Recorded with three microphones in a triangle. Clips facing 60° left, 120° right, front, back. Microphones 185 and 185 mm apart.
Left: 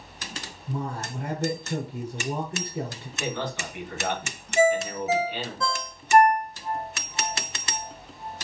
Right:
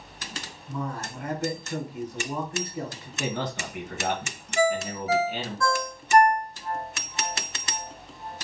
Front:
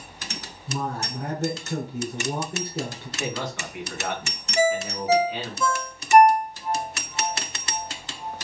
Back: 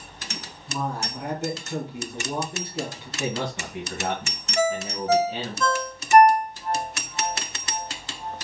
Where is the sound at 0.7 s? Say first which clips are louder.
Left 1 dB, even; 30° left, 1.3 m.